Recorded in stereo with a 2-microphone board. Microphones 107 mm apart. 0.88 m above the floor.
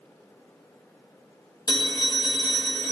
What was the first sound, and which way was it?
A phone ringing, 35° left (ahead or behind).